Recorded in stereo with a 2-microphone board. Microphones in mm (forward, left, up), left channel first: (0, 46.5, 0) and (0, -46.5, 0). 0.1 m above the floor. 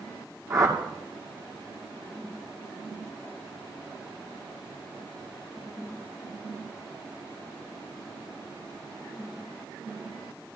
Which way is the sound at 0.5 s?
40° right (ahead or behind).